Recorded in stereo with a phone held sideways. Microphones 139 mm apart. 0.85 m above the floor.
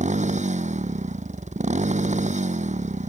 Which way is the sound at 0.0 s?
55° right (ahead or behind).